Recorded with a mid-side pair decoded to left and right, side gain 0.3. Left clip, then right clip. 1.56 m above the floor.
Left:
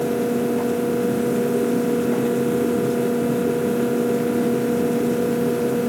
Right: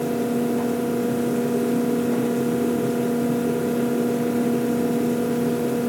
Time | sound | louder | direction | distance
0.0 | a fan | left 2 dB | 35° left | 0.8 m